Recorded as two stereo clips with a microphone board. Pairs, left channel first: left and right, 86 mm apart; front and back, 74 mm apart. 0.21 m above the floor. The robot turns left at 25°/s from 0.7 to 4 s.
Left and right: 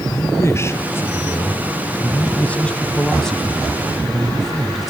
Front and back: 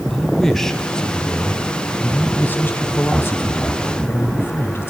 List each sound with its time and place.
0.1 s a man speaking: 75° left, 1.5 m; by 4.9 s 5° right, 1.5 m